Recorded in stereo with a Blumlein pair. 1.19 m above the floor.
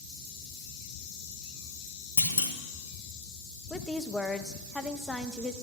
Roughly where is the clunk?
Left.